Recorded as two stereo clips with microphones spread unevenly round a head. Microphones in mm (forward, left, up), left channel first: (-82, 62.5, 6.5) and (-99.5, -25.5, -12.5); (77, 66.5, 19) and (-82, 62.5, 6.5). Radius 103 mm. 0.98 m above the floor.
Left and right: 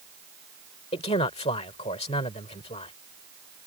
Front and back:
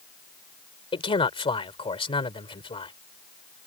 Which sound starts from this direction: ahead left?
A man speaking, at 0.9 s.